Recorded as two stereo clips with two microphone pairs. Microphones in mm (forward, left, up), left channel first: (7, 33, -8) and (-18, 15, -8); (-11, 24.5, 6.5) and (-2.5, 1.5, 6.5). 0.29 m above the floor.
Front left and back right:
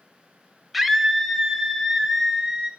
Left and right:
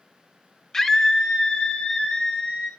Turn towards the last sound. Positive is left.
turn(degrees=130)